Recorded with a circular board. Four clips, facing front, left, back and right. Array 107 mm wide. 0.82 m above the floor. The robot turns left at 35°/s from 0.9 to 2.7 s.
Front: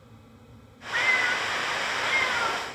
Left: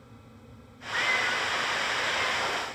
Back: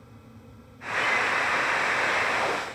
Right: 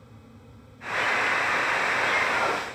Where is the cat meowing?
15° left, 3 m; by 2.8 s 45° right, 3 m.